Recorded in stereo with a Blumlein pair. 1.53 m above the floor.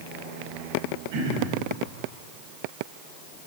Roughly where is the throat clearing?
Ahead right.